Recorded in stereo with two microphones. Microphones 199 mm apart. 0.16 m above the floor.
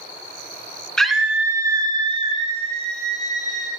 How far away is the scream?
About 1.4 m.